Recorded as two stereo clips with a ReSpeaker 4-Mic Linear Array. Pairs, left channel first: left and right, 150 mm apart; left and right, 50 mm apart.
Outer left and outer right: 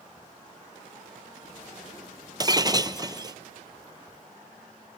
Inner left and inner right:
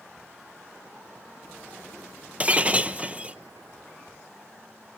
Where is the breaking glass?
30° right (ahead or behind), 0.7 m.